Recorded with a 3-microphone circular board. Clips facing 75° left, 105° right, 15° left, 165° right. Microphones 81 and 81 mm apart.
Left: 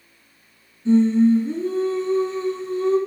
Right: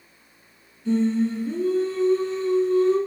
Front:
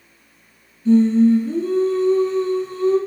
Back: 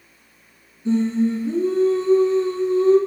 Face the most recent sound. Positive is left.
turn(degrees=140)